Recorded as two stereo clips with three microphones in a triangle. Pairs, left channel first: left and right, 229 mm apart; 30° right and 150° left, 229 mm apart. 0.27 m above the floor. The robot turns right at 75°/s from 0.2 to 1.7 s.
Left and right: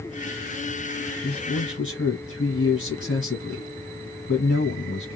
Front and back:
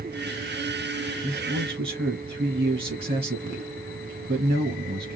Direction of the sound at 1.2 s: 80° left.